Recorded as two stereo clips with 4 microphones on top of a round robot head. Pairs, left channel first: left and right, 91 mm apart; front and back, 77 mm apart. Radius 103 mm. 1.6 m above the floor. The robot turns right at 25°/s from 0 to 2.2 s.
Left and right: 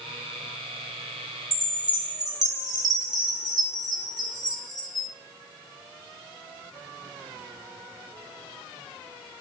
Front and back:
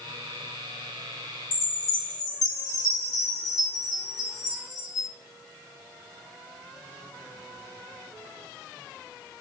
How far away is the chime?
About 1.0 m.